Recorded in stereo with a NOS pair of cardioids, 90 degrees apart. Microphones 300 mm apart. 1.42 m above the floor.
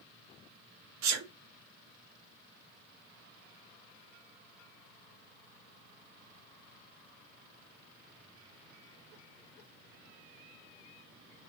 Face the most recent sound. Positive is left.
turn(degrees=-65)